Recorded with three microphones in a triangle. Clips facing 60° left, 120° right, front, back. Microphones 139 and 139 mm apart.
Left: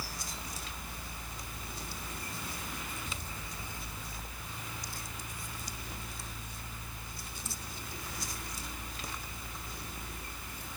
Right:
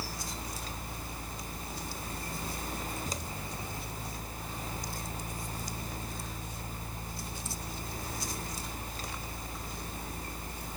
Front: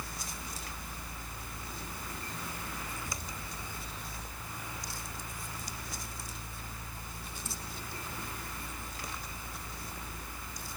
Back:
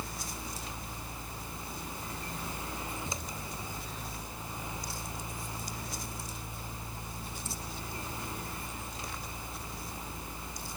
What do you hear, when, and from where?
Only background noise.